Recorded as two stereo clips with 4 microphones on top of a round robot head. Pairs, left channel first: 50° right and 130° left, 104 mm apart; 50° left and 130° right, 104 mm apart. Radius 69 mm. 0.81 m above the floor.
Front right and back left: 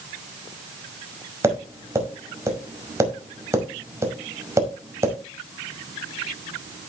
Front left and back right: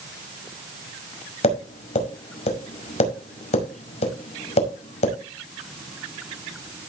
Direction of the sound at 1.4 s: 70° left.